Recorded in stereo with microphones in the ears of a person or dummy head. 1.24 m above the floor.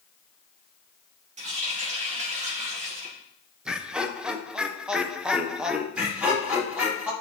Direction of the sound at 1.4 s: 35° right (ahead or behind).